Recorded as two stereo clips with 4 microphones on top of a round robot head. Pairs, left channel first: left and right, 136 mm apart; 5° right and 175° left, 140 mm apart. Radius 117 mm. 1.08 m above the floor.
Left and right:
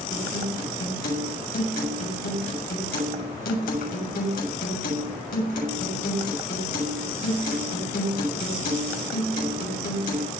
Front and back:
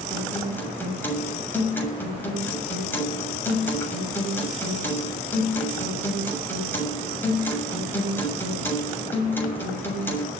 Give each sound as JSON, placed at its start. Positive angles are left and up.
{"t": 0.1, "sound": "a guitar", "azimuth_deg": 70, "distance_m": 7.0}